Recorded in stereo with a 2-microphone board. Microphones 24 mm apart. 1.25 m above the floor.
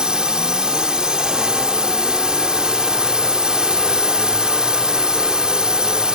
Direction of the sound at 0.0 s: 35° right (ahead or behind).